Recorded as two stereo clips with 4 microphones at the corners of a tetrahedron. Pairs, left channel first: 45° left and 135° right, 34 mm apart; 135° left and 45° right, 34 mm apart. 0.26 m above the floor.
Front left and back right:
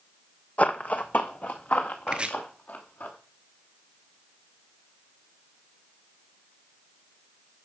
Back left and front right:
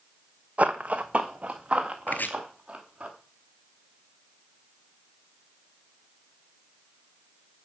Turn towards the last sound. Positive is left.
turn(degrees=165)